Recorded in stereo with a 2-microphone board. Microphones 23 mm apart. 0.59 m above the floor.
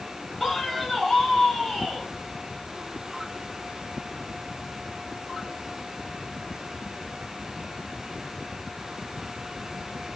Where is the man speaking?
5° left (ahead or behind), 2.5 m.